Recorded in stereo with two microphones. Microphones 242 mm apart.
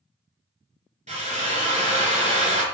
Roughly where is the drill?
Right.